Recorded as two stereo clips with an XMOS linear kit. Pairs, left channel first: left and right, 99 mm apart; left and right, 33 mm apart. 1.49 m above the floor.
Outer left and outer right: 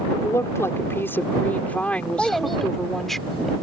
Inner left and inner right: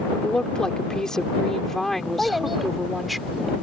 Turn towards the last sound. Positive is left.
turn(degrees=0)  # may be behind; listen again after turning